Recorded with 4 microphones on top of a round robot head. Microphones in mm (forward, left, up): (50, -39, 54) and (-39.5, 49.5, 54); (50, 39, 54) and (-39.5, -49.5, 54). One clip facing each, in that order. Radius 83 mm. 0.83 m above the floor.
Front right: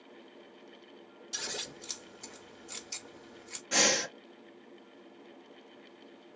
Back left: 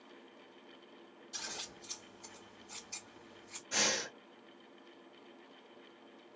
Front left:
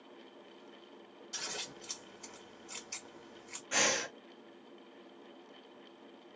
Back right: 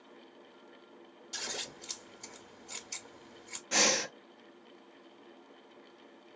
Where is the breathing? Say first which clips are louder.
Front right 7 dB, back right 3 dB; 75° right, 0.5 m.